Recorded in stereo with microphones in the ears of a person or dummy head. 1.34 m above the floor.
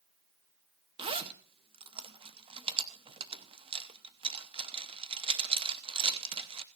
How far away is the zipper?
About 0.7 m.